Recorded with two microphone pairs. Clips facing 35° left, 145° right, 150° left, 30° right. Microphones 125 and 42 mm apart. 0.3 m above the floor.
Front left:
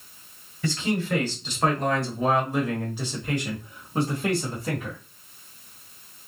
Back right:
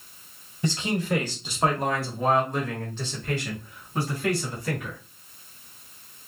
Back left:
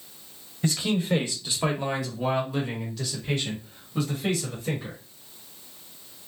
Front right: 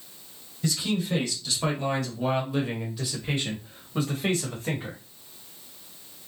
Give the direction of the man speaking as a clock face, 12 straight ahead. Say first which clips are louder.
Even, back left 2 dB; 7 o'clock.